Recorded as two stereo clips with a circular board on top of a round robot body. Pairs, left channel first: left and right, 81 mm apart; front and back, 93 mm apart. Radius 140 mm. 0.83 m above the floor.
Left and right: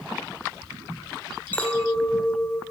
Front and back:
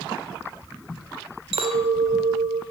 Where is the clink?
165° left, 2 m.